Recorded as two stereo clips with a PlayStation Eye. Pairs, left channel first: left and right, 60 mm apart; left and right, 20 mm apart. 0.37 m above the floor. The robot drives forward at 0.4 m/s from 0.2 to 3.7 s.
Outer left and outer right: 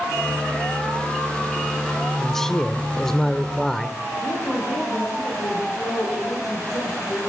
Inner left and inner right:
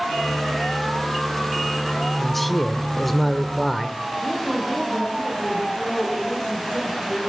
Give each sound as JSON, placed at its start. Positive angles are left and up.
{"t": 2.2, "sound": "a man speaking", "side_deg": 5, "distance_m": 0.8}
{"t": 4.2, "sound": "a woman speaking", "side_deg": 75, "distance_m": 9.5}